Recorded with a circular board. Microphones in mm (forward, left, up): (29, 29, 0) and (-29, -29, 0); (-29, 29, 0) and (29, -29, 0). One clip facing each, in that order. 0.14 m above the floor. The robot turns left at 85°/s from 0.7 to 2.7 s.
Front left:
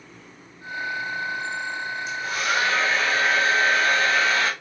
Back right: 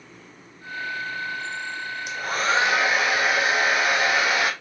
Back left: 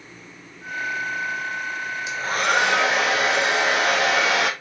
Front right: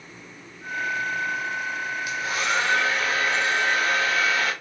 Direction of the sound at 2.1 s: 155° right.